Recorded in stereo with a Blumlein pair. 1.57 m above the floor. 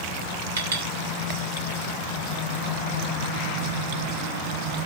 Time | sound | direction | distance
0.6 | a clink | 65° right | 4.5 m